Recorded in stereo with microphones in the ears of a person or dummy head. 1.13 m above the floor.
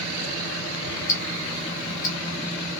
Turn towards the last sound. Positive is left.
turn(degrees=65)  # may be behind; listen again after turning